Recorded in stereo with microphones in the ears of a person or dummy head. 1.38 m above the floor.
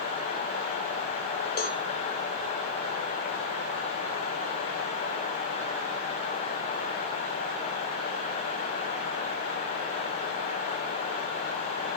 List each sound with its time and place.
1.6 s a cowbell: 55° left (ahead or behind), 1.7 m